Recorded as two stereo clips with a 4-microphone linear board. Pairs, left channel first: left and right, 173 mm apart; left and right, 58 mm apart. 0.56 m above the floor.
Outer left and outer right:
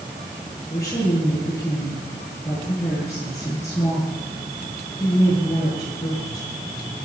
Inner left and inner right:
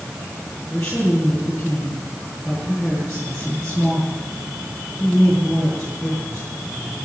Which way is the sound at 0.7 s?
15° left (ahead or behind).